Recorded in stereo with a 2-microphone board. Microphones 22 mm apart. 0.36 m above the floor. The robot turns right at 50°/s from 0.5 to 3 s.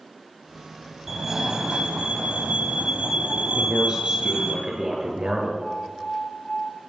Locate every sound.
1.1 s a fire alarm: 165° right, 3.5 m; by 4.5 s 65° right, 3.5 m
3.5 s a man speaking: 30° right (ahead or behind), 7 m
5.6 s an alarm: 45° left (ahead or behind), 8 m